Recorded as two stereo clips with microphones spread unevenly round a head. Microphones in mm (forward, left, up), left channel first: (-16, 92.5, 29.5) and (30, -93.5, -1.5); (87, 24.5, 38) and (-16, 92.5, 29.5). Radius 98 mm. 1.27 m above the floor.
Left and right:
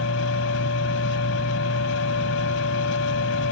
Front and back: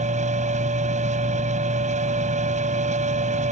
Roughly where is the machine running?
Behind left.